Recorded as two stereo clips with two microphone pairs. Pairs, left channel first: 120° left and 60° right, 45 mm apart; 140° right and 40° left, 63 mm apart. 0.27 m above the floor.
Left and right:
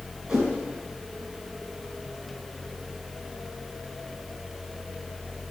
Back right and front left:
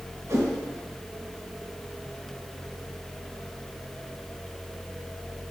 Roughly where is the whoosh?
Ahead.